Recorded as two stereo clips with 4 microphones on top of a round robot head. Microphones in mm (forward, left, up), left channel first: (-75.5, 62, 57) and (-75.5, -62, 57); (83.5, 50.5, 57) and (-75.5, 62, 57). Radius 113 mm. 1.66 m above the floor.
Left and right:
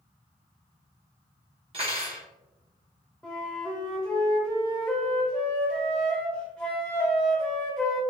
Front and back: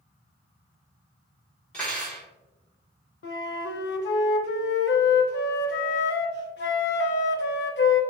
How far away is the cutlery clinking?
About 1.0 m.